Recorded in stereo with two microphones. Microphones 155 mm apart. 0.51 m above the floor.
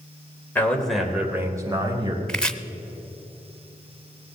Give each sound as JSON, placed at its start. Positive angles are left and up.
{"t": 0.6, "sound": "a man speaking", "side_deg": 10, "distance_m": 2.5}
{"t": 2.3, "sound": "chopping", "side_deg": 5, "distance_m": 0.7}